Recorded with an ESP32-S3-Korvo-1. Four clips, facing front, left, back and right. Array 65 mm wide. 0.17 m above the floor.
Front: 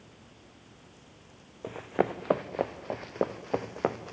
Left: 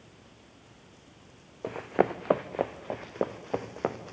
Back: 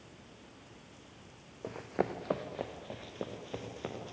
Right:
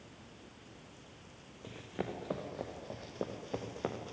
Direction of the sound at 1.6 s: 80° left.